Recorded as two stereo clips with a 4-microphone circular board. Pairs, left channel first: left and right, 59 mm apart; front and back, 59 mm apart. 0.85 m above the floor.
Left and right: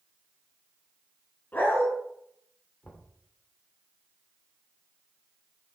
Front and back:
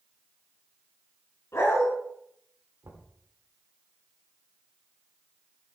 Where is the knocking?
150° left, 2 m.